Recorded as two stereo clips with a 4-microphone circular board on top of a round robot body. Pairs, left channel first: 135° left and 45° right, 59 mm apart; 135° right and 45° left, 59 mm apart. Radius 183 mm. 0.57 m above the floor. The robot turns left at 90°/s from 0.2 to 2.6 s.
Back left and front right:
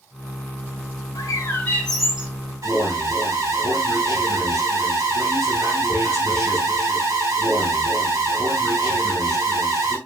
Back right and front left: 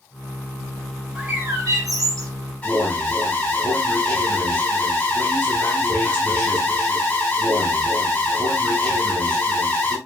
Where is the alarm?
65° right, 3.5 m.